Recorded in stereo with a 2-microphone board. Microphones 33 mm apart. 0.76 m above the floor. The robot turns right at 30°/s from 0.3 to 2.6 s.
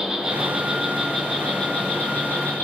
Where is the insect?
20° right, 4 m; by 2.7 s 50° left, 4 m.